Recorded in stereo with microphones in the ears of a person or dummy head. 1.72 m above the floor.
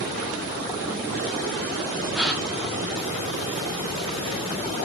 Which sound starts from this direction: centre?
A gasp, at 2.1 s.